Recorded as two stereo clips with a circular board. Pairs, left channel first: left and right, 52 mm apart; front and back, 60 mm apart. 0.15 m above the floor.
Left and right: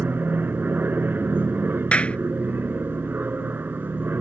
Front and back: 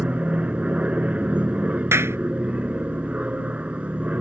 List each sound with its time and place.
0.0 s an aircraft: 120° right
1.9 s a clap: 150° left